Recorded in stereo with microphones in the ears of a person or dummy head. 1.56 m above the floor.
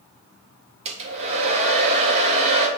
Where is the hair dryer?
35° right (ahead or behind), 1.2 m.